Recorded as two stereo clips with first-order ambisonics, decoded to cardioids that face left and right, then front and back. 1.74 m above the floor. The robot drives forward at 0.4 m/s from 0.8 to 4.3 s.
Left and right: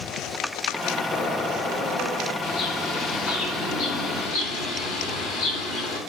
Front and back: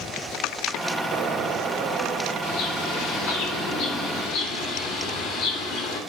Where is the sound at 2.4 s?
45° left, 3.5 m; by 6.0 s 60° left, 3 m.